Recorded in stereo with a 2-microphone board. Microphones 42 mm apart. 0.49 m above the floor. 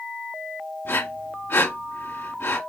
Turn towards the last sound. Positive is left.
turn(degrees=65)  # may be behind; listen again after turning